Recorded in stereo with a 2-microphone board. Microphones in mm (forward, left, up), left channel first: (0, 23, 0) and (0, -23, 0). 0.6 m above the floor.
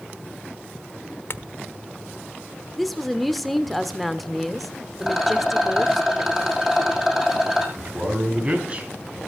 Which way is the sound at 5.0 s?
5° right (ahead or behind).